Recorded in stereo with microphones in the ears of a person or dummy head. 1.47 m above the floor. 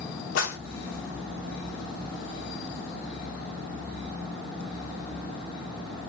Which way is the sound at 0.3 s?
80° left.